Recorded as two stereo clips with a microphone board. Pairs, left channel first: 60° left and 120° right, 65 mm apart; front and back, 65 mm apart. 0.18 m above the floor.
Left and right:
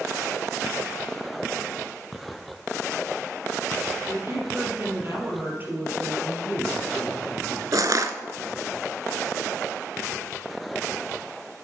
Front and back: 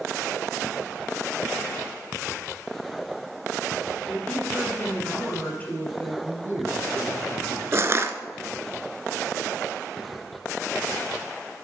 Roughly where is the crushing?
Behind right.